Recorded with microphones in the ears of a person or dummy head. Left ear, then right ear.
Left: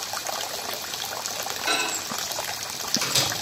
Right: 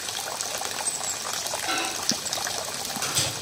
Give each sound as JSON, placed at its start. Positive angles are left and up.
{"t": 1.7, "sound": "a microwave", "side_deg": 70, "distance_m": 3.0}